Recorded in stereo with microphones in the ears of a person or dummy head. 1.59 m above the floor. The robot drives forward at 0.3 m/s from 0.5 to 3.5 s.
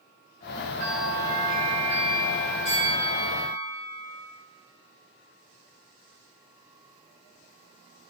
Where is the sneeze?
I don't hear a sneeze.